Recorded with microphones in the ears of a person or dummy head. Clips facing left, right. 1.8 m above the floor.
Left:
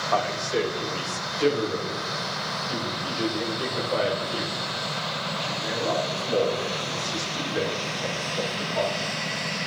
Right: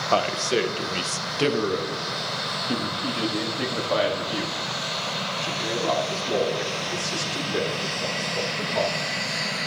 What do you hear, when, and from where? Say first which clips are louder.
0.1 s a man speaking: right 3 dB; 45° right (ahead or behind), 1.3 m; by 8.9 s 85° right, 5.5 m